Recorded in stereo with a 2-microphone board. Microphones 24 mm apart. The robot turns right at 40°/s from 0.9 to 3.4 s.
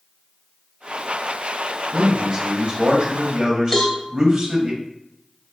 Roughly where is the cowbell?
Centre.